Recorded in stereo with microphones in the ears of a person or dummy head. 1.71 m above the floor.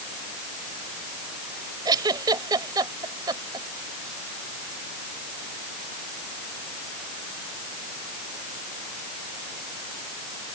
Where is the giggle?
25° right (ahead or behind).